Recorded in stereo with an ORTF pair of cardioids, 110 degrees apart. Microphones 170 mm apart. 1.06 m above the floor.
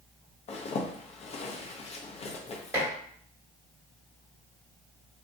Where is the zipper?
40° left, 0.6 m.